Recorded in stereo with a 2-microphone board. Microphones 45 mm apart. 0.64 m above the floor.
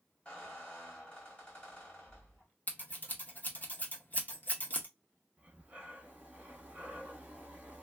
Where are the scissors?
40° left (ahead or behind), 0.9 m.